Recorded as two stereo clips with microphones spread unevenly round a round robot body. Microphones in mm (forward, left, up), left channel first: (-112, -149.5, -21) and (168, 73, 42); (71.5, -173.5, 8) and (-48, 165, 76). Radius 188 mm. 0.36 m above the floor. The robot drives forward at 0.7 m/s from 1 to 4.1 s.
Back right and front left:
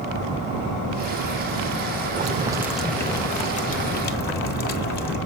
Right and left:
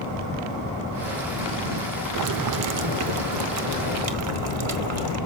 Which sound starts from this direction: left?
Boiling, at 2.1 s.